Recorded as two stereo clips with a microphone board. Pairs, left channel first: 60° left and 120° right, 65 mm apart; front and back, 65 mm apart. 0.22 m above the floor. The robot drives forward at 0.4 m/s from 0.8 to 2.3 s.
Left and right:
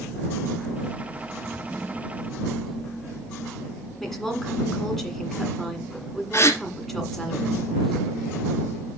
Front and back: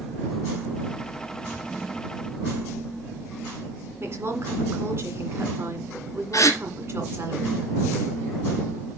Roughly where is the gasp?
Ahead left.